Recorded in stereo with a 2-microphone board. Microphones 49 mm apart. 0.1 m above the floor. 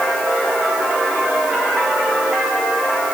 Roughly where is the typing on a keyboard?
I don't hear typing on a keyboard.